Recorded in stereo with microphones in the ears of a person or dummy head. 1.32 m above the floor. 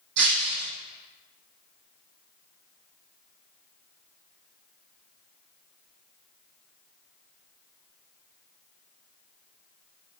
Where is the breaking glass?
75° right (ahead or behind), 4.5 m.